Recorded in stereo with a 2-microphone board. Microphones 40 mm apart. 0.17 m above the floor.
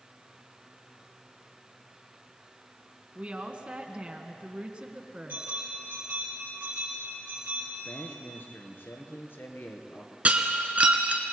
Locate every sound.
3.1 s a woman speaking: 30° right (ahead or behind), 1.6 m
5.3 s a bell: 55° right (ahead or behind), 5.5 m
7.8 s a man speaking: 65° left (ahead or behind), 2.5 m
10.2 s breaking glass: 35° right (ahead or behind), 1.4 m